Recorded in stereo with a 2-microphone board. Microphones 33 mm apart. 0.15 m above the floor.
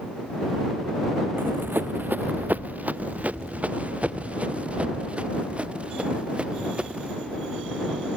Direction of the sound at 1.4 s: 85° right.